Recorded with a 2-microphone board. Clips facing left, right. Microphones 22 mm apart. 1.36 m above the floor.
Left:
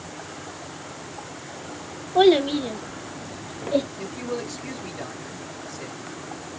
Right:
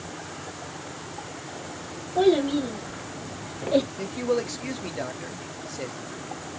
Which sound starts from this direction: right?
A man speaking, at 4.0 s.